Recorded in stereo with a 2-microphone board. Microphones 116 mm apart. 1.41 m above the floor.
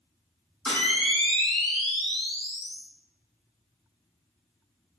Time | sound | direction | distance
0.7 | a camera shutter | 5° left (ahead or behind) | 2.0 m